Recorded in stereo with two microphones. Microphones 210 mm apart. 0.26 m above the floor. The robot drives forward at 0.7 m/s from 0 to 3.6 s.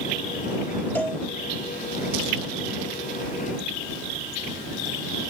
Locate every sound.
0.9 s a cowbell: 10° left (ahead or behind), 1.3 m; by 1.2 s 5° left (ahead or behind), 1.4 m